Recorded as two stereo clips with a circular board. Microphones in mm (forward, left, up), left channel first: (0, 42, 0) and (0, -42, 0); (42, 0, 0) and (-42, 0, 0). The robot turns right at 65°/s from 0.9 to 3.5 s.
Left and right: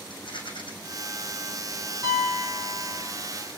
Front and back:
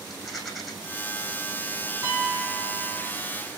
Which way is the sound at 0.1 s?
95° left.